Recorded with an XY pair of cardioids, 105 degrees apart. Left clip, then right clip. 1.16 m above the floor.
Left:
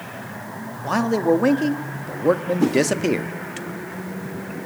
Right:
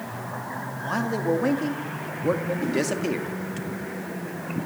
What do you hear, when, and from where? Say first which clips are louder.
0.8 s a man speaking: left 6 dB; 40° left, 2.0 m
2.6 s a whoosh: left 7 dB; 70° left, 2.5 m